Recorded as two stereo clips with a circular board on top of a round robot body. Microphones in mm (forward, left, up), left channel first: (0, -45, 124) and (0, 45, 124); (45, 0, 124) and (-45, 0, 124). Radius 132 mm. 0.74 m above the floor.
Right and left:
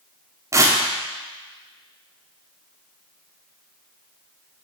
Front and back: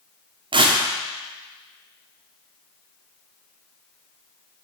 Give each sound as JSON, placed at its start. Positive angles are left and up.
{"t": 0.5, "sound": "tearing paper", "azimuth_deg": 150, "distance_m": 1.0}